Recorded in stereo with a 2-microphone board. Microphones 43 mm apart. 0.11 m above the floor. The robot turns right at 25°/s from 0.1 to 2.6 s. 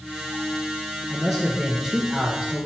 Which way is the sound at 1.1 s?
Straight behind.